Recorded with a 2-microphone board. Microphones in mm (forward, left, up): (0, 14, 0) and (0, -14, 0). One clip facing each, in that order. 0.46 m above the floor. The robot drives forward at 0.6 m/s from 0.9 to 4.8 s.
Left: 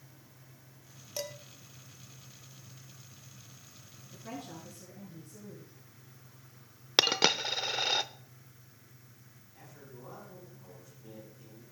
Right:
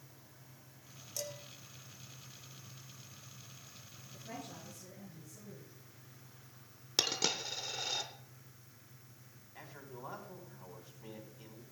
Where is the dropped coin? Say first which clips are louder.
Left 8 dB; 45° left (ahead or behind), 0.5 m.